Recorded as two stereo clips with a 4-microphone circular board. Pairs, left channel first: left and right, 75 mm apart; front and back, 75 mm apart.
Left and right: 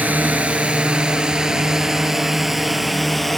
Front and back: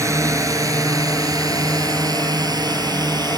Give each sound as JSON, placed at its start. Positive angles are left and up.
{"t": 0.0, "sound": "a drone", "azimuth_deg": -150}